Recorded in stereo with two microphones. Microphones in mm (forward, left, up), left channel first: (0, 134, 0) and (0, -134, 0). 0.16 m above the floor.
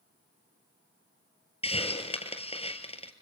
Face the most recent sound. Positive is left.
turn(degrees=20)  # may be behind; listen again after turning